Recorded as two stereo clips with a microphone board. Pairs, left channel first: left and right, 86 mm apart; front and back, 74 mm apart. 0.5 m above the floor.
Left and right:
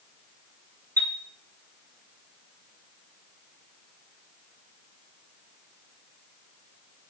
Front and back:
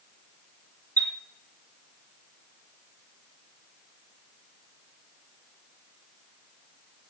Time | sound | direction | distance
1.0 | a chime | 140° right | 2 m